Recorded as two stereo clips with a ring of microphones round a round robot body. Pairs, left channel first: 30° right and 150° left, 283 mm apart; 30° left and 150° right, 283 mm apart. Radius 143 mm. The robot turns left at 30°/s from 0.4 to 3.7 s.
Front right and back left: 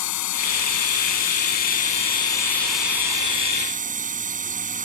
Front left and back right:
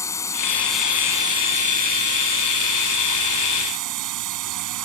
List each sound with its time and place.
0.0 s a drone: 50° right; by 4.9 s 150° right